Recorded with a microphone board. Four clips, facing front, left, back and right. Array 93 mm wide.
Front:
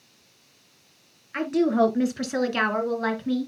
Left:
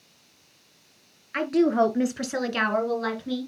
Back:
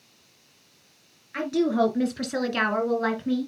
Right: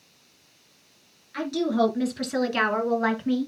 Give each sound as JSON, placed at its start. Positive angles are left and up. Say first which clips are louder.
{"t": 1.3, "sound": "a woman speaking", "louder": "left 3 dB, front 2 dB", "azimuth_deg": 70, "distance_m": 2.0}